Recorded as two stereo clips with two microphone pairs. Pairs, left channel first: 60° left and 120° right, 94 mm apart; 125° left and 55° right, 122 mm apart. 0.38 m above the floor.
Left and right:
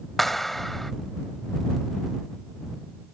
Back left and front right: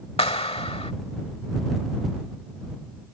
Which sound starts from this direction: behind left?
A clap, at 0.2 s.